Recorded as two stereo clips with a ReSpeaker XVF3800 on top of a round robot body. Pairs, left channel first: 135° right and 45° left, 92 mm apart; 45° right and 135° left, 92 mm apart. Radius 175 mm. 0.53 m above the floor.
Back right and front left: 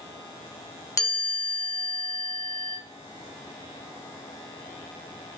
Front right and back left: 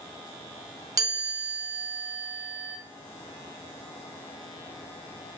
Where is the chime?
175° left, 0.9 m.